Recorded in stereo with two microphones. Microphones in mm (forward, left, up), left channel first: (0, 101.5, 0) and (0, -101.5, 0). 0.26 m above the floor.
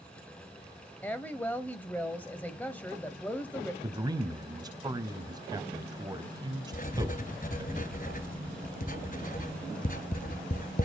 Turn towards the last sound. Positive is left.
turn(degrees=45)  # may be behind; listen again after turning